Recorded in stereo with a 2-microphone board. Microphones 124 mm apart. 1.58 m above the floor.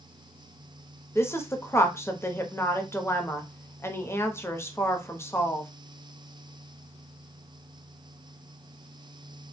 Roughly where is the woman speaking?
Centre.